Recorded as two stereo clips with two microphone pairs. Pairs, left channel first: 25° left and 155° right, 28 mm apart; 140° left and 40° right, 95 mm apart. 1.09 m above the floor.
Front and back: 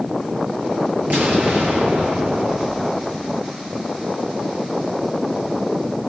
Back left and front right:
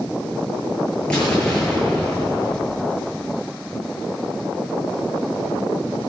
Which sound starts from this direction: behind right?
An explosion, at 1.1 s.